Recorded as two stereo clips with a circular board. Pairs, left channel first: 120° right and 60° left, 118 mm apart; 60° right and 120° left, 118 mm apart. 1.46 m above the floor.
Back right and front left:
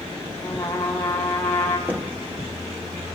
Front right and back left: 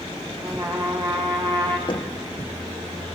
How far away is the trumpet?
About 8 m.